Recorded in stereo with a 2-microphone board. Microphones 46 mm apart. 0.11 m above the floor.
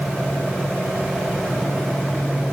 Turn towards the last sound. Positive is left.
No sound to turn to.